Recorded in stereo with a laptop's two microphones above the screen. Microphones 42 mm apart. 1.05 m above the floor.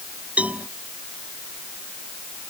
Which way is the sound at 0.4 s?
35° right (ahead or behind).